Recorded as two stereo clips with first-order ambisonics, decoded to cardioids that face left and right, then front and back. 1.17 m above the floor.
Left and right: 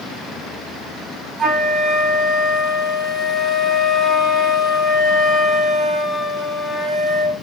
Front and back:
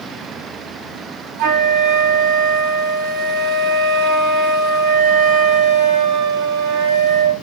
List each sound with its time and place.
1.4 s a flute: 165° right, 2.5 m